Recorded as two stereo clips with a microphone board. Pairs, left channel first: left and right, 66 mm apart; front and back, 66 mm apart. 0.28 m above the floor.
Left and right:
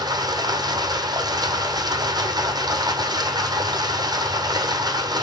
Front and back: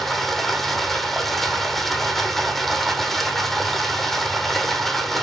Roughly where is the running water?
Right.